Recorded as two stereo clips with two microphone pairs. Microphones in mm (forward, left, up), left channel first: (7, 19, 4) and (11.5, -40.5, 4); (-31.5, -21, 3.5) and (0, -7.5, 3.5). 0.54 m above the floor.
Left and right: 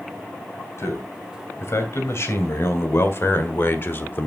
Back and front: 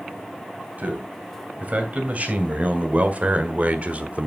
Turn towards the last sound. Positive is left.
turn(degrees=50)